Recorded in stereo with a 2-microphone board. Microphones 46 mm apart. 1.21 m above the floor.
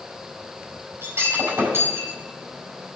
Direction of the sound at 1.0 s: 65° right (ahead or behind).